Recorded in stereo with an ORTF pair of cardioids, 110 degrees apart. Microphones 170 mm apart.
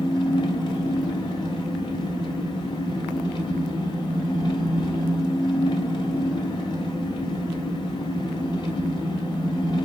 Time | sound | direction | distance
0.0 | an engine running | 30° left | 1.5 m